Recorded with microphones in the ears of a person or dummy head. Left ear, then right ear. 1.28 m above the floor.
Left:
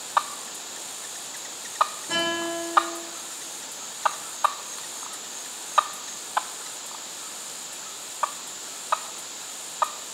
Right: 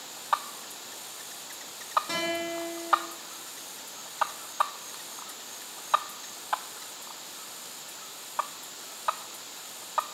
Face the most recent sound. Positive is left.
turn(degrees=-65)  # may be behind; listen again after turning